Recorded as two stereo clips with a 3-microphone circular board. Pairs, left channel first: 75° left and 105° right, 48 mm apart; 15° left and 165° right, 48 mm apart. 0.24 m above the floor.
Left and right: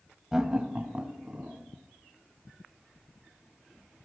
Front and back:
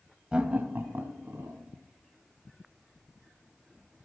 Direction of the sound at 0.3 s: 160° right.